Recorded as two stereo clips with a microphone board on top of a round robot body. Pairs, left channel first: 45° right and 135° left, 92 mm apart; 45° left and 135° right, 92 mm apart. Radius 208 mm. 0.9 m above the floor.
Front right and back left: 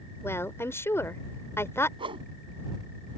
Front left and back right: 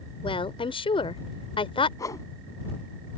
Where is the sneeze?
No sneeze in this recording.